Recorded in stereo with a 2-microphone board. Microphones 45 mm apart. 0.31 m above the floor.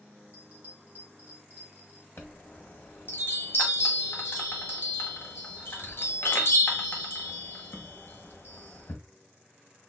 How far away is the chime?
About 1.0 m.